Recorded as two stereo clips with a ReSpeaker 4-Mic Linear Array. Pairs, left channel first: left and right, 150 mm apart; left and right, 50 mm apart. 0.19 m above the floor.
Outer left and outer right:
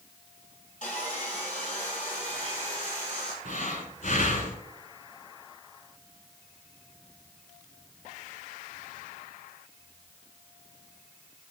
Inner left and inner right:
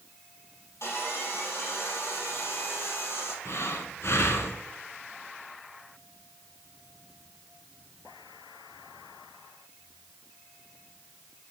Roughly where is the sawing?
Left.